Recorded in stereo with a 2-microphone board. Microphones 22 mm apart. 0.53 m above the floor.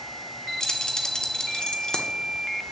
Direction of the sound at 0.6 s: 35° left (ahead or behind).